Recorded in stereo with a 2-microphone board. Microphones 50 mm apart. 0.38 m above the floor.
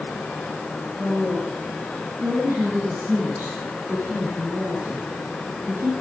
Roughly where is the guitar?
I don't hear a guitar.